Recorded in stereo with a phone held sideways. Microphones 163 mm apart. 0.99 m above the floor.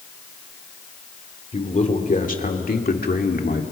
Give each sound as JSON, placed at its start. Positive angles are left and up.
{"t": 1.5, "sound": "a man speaking", "side_deg": 45, "distance_m": 2.5}